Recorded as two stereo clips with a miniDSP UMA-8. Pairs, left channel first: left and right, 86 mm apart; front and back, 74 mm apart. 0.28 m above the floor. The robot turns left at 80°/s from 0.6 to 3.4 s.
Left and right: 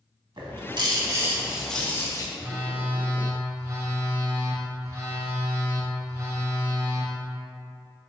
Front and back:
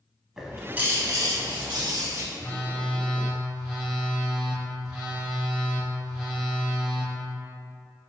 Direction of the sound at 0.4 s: 100° right.